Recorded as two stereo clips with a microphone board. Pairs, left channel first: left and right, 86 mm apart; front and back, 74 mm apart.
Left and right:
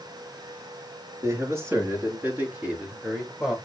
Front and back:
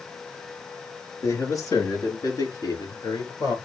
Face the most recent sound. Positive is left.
turn(degrees=-5)